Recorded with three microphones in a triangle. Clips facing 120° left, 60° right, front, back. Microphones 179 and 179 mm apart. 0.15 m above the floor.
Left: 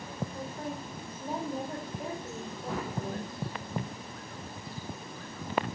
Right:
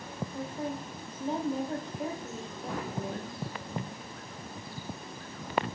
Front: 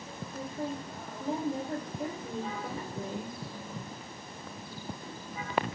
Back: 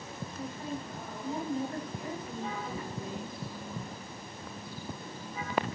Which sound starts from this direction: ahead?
A woman speaking, at 0.3 s.